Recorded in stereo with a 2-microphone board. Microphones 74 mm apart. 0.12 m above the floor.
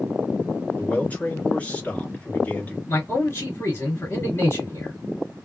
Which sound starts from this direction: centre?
A man speaking, at 0.8 s.